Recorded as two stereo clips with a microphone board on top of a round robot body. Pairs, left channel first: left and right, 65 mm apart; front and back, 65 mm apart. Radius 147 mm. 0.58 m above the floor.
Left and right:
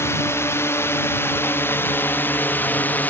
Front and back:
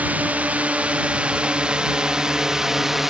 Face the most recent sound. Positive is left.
turn(degrees=100)